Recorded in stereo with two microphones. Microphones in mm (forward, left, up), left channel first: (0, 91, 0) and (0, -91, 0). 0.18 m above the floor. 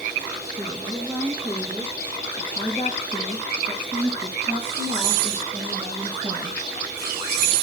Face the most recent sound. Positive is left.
turn(degrees=-30)  # may be behind; listen again after turning